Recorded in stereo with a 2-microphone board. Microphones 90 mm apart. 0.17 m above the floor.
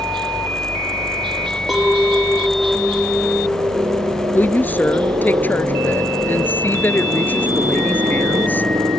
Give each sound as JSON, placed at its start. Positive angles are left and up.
{"t": 0.0, "sound": "a helicopter", "side_deg": -65}
{"t": 1.7, "sound": "a clink", "side_deg": -5}
{"t": 4.3, "sound": "a woman speaking", "side_deg": 20}